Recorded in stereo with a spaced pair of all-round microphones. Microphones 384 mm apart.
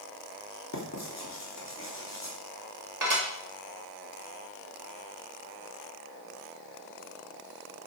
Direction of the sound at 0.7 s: 45° left (ahead or behind).